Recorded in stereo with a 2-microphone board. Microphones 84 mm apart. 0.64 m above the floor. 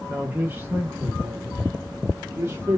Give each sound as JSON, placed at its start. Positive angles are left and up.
{"t": 0.1, "sound": "a man speaking", "side_deg": -15, "distance_m": 1.0}